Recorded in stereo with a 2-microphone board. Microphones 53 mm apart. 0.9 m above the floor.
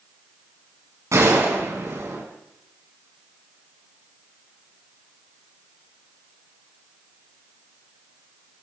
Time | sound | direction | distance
1.1 | a gunshot | 75° right (ahead or behind) | 5.5 m